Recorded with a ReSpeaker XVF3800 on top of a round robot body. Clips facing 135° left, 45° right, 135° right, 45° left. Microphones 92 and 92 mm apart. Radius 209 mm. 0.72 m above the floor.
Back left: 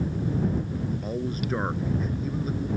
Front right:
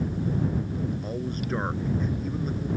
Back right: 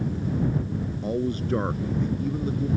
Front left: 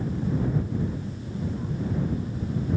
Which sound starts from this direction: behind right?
A man speaking, at 1.0 s.